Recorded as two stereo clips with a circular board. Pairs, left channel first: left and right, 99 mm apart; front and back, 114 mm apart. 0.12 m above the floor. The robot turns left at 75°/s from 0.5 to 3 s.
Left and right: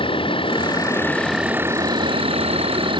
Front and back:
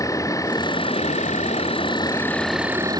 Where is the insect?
60° left; by 3.0 s 125° right.